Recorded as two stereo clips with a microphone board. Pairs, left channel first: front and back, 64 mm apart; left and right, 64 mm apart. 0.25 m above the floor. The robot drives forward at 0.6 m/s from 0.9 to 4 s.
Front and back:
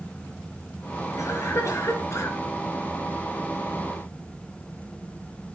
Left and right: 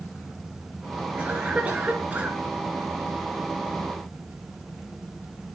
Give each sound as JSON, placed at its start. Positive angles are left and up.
{"t": 1.2, "sound": "a cough", "azimuth_deg": -25, "distance_m": 4.0}